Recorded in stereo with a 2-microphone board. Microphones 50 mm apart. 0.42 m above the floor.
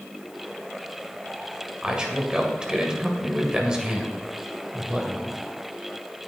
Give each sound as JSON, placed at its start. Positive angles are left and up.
{"t": 1.8, "sound": "a man speaking", "side_deg": -15, "distance_m": 2.0}